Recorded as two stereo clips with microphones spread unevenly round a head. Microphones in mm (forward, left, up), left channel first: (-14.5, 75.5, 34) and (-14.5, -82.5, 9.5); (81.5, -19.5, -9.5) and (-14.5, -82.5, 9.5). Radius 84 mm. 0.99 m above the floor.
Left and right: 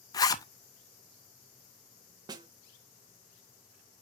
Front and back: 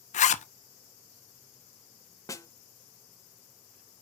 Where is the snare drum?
25° right, 0.8 m.